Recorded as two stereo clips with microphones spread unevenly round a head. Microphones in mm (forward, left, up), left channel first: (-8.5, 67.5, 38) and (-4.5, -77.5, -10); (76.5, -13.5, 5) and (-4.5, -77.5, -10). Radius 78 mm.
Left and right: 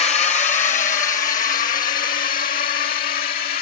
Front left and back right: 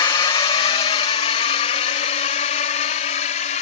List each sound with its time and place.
0.0 s a drone: 50° left; by 3.6 s 55° left